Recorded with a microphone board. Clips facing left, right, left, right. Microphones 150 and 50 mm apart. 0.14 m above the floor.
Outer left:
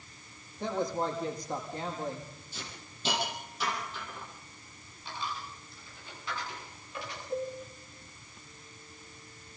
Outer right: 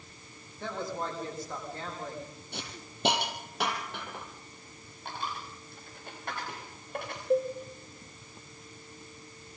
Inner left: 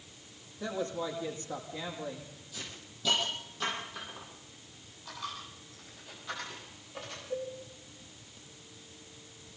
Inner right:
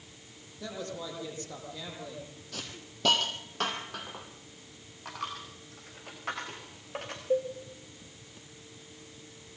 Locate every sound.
0.6 s a woman speaking: 20° left (ahead or behind), 7 m
2.5 s a hiss: 65° right (ahead or behind), 4 m
5.0 s a dropped coin: 55° right (ahead or behind), 7 m
7.3 s a cowbell: 75° right (ahead or behind), 5 m